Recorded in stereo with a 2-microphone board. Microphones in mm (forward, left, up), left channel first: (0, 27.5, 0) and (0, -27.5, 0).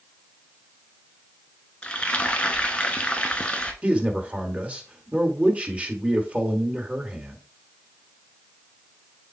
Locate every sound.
1.8 s frying: 20° left (ahead or behind), 1.0 m
3.8 s a man speaking: 25° right (ahead or behind), 1.6 m